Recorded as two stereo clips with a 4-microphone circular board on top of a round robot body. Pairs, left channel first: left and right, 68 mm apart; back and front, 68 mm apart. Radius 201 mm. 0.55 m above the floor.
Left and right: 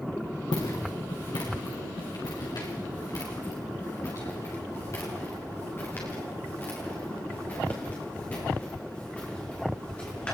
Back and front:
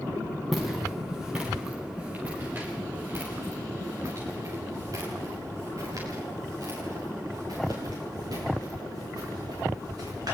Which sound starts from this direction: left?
Footsteps, at 0.5 s.